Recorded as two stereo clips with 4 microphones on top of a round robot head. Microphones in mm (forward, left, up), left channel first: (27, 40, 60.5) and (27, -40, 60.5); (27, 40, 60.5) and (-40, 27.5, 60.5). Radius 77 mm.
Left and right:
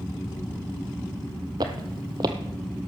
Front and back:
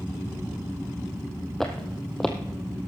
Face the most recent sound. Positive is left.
turn(degrees=-75)